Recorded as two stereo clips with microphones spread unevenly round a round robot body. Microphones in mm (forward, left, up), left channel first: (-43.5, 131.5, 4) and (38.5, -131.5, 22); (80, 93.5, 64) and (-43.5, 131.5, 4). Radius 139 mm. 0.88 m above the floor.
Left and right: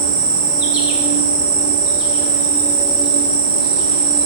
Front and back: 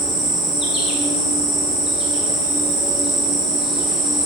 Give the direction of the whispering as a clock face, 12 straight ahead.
No whispering in this recording.